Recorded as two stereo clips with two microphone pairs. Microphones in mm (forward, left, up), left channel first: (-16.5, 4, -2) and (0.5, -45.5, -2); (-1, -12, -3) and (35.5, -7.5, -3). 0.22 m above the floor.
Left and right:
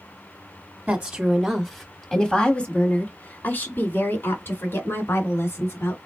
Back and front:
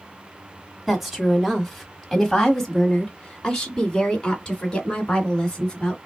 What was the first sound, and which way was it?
A woman speaking, 65° right.